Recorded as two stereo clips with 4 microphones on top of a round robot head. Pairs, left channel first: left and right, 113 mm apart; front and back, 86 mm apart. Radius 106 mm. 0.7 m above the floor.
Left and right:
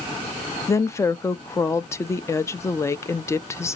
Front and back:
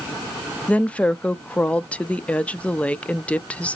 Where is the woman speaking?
60° left, 0.5 m.